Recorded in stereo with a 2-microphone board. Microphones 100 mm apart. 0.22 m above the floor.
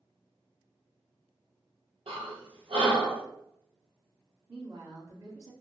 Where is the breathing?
80° right, 0.9 m.